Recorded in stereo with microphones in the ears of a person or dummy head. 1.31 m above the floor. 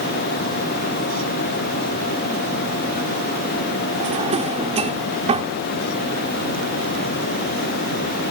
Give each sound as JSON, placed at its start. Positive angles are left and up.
{"t": 4.0, "sound": "a drawer", "side_deg": -35}